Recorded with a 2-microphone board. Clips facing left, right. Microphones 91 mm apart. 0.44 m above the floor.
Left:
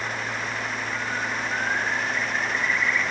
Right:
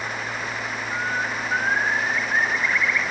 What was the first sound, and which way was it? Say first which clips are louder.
A bird: right 5 dB; 80° right.